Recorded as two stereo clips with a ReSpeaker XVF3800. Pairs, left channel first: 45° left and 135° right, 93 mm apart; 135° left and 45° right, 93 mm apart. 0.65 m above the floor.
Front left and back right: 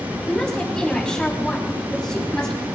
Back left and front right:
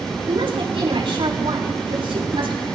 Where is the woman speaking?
35° right, 5.5 m.